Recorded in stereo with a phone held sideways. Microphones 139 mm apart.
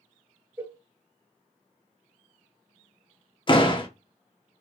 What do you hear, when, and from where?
0.6 s a cowbell: 15° right (ahead or behind), 0.9 m
3.5 s a door slam: 35° left (ahead or behind), 1.0 m